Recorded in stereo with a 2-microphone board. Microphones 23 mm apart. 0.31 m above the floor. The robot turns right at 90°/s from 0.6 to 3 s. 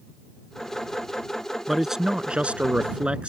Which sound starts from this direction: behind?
A man speaking, at 1.7 s.